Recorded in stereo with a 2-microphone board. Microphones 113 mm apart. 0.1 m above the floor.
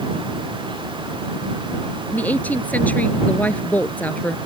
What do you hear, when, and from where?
2.1 s a woman speaking: 15° left (ahead or behind)